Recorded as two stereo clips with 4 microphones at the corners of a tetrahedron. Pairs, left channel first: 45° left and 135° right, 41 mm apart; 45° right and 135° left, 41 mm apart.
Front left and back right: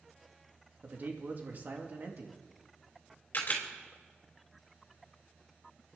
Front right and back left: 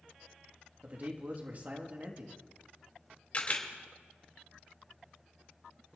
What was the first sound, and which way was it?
A man speaking, straight behind.